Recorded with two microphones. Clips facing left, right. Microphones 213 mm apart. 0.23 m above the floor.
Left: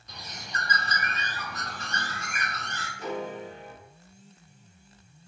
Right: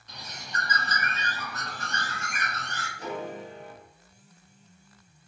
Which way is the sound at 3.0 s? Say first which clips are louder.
Left 2 dB; 40° right (ahead or behind).